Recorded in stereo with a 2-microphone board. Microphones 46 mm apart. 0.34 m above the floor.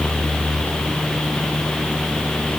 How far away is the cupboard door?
I don't hear a cupboard door.